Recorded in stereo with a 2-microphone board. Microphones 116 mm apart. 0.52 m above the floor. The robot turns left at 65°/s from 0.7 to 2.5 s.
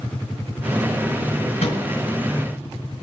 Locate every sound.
1.6 s a microwave: 70° left (ahead or behind), 5 m; by 1.8 s 55° left (ahead or behind), 5 m